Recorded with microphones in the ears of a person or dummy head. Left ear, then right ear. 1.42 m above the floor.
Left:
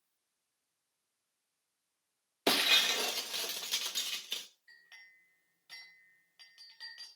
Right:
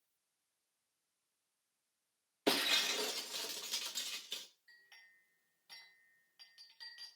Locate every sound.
2.5 s breaking glass: 20° left (ahead or behind), 1.1 m
4.7 s a clink: 15° left (ahead or behind), 5 m